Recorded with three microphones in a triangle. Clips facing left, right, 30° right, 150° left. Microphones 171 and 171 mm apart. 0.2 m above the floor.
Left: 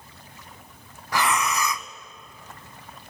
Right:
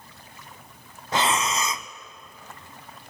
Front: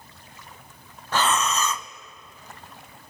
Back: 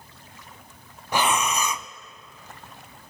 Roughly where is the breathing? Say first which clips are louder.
Even, even; behind right.